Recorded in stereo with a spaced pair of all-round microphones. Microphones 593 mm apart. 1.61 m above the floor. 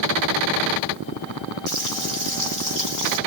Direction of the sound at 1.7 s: 30° right (ahead or behind).